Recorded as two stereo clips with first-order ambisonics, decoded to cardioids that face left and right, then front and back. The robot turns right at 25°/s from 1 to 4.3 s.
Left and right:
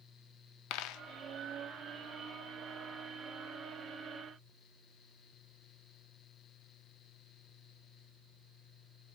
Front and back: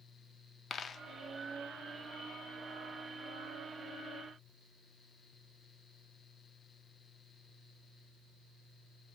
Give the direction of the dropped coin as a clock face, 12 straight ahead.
10 o'clock.